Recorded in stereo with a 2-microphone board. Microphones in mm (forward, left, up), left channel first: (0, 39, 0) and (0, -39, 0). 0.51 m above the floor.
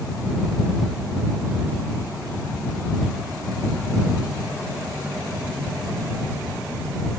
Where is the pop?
No pop in this recording.